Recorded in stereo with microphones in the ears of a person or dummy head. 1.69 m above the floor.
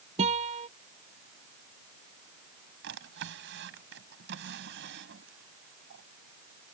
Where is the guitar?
40° right (ahead or behind).